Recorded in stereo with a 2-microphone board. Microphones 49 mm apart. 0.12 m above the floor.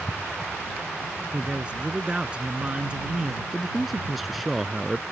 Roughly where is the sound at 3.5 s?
Centre.